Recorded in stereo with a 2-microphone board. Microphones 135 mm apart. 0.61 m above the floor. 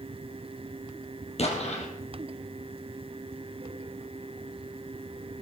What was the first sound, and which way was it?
An explosion, 50° left (ahead or behind).